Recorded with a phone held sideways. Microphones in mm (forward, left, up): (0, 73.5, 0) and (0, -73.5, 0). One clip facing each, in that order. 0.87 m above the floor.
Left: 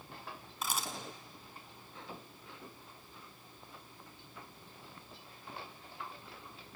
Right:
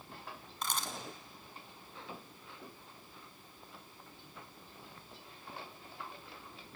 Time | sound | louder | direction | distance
0.6 | a camera shutter | even | 5° left (ahead or behind) | 2 m